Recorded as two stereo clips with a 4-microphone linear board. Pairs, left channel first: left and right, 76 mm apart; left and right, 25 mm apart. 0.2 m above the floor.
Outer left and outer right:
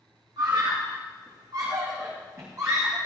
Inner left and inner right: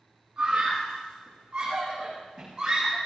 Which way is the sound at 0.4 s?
65° right (ahead or behind).